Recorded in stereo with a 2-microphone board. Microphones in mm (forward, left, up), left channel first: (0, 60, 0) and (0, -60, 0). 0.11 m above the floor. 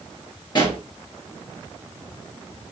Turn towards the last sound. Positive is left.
turn(degrees=40)  # may be behind; listen again after turning